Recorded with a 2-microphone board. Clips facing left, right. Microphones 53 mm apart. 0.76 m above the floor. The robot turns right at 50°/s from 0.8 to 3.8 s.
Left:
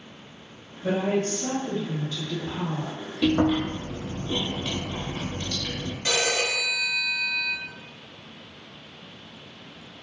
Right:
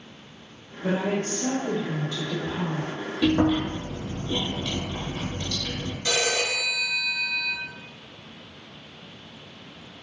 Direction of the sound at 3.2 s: Centre (ahead or behind).